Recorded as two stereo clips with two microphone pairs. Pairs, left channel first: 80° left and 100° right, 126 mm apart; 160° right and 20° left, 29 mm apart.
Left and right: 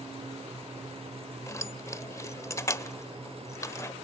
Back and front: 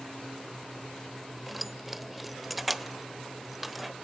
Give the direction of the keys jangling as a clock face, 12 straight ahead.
9 o'clock.